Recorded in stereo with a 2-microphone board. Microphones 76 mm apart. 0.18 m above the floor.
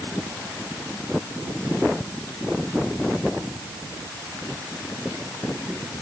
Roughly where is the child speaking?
I don't hear a child speaking.